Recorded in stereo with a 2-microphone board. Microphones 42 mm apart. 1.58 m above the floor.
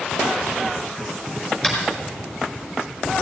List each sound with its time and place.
1.6 s tapping: 15° left (ahead or behind), 5.5 m